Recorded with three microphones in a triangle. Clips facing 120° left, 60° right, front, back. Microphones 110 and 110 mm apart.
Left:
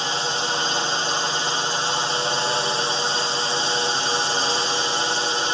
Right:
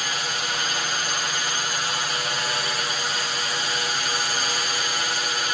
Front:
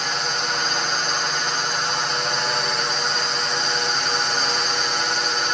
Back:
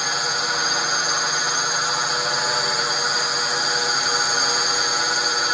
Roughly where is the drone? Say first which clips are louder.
Left 4 dB, even; left.